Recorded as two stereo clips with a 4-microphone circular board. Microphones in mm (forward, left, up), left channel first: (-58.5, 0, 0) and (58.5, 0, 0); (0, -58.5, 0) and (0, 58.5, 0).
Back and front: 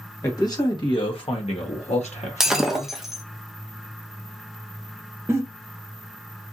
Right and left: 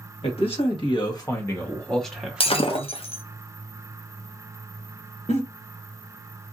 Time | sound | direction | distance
0.2 | a man speaking | 120° right | 1.4 m
2.4 | breaking glass | 85° right | 0.5 m
5.3 | a giggle | 65° right | 0.9 m